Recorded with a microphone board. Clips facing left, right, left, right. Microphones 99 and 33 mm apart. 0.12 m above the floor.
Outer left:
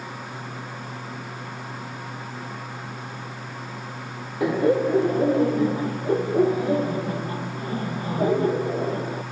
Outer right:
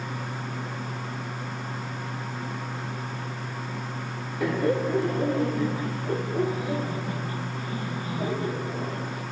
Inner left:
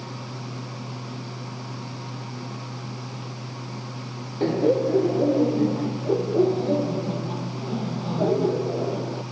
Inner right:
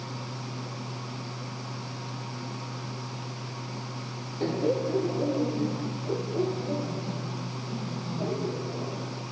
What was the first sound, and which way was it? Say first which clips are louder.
Laughter: outer left 5 dB, inner left 6 dB; 20° left (ahead or behind).